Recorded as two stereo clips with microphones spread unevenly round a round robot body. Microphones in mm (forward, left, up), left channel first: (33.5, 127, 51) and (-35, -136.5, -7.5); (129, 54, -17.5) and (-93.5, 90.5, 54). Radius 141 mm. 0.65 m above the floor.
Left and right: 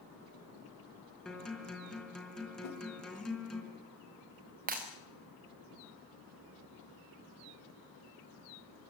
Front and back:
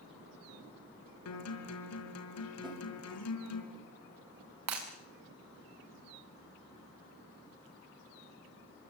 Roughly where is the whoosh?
Left.